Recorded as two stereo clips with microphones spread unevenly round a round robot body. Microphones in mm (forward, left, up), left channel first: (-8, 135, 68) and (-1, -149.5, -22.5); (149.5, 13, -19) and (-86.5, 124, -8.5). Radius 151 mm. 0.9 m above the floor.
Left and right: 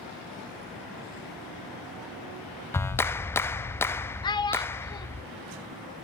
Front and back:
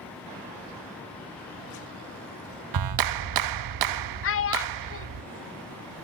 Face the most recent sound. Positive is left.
turn(degrees=10)